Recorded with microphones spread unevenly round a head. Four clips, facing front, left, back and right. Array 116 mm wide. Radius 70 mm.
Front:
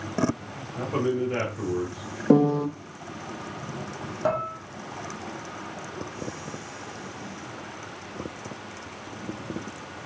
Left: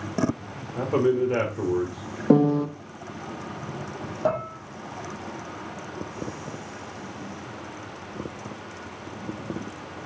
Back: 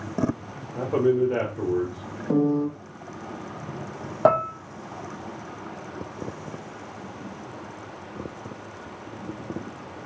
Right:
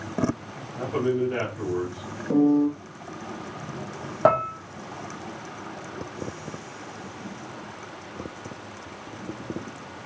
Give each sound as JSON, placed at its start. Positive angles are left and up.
{"t": 0.8, "sound": "a man speaking", "azimuth_deg": 130, "distance_m": 1.8}
{"t": 2.3, "sound": "a piano", "azimuth_deg": 35, "distance_m": 0.6}
{"t": 4.2, "sound": "dishes clattering", "azimuth_deg": -155, "distance_m": 0.6}